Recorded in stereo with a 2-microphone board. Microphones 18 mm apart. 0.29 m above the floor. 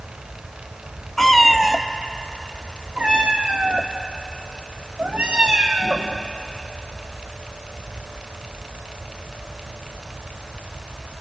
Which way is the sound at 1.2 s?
15° left (ahead or behind).